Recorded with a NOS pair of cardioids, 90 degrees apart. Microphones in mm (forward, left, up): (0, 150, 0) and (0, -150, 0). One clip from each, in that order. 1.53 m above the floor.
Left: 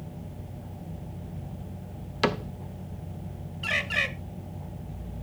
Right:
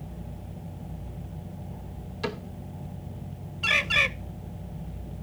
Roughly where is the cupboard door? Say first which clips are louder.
Left 7 dB; ahead left.